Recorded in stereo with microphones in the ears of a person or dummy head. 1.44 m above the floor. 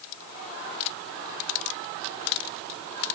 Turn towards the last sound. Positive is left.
No sound to turn to.